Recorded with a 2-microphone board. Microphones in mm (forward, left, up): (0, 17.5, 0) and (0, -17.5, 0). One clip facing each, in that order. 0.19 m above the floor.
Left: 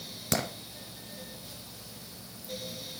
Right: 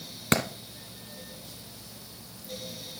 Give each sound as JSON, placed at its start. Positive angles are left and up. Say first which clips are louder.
{"t": 0.3, "sound": "a clap", "louder": "right 5 dB", "side_deg": -45, "distance_m": 1.9}